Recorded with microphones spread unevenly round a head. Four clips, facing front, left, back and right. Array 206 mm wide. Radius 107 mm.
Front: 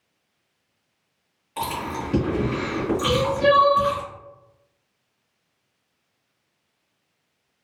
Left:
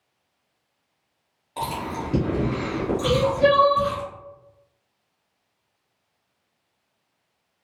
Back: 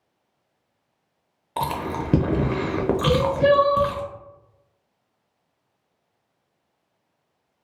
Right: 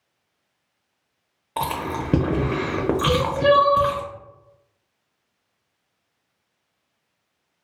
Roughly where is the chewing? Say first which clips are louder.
Right 3 dB, back 2 dB; behind right.